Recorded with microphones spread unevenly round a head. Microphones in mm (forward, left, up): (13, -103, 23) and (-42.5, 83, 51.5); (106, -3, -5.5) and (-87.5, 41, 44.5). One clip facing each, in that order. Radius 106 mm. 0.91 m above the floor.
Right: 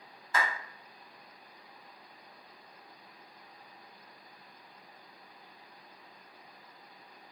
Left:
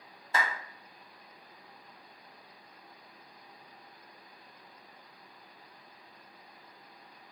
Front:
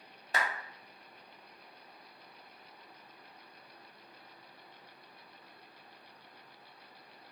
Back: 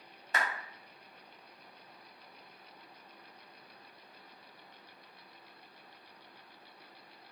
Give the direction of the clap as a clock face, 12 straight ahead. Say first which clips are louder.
Even, front 1 dB; 11 o'clock.